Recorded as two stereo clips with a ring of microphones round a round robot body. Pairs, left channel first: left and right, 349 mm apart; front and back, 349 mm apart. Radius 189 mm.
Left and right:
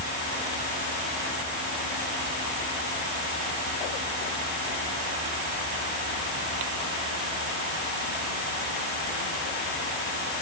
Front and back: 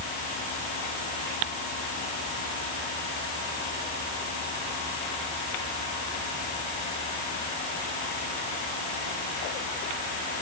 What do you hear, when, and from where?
Only background noise.